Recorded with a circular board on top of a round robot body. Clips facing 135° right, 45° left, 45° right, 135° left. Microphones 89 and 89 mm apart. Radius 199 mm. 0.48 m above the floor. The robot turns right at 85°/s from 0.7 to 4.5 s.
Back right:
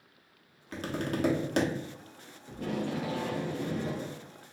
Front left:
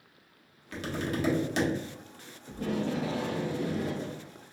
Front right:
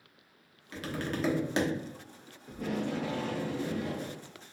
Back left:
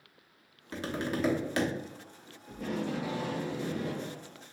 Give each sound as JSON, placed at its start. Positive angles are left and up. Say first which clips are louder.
{"t": 0.7, "sound": "tapping", "louder": "even, back left 2 dB", "azimuth_deg": 180, "distance_m": 1.1}
{"t": 2.5, "sound": "tape being pulled", "louder": "front left 2 dB, front right 1 dB", "azimuth_deg": 15, "distance_m": 1.4}